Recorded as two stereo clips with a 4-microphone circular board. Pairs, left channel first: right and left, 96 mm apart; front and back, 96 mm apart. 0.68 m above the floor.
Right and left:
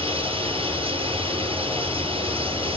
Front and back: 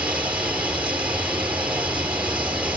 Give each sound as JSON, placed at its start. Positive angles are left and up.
{"t": 0.0, "sound": "running water", "azimuth_deg": 100, "distance_m": 5.0}